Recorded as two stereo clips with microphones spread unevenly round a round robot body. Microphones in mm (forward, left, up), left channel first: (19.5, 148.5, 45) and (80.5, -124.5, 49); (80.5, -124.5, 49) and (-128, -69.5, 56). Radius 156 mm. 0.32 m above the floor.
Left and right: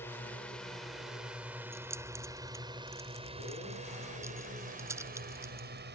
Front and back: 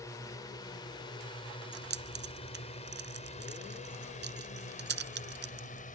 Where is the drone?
35° left; by 6.0 s 45° right.